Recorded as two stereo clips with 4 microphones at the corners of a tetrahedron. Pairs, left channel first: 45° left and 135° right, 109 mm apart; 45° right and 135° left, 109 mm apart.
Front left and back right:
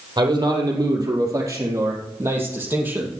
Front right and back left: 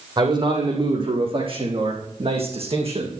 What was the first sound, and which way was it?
A man speaking, 175° left.